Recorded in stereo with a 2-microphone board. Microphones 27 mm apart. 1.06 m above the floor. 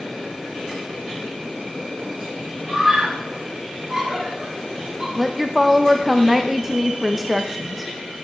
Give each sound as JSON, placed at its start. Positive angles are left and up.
{"t": 2.7, "sound": "a scream", "side_deg": -10, "distance_m": 5.5}
{"t": 5.2, "sound": "a woman speaking", "side_deg": -5, "distance_m": 0.5}